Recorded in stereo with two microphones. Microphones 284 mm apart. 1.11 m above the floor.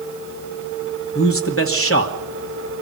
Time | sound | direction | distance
1.1 | a man speaking | 55° left (ahead or behind) | 1.6 m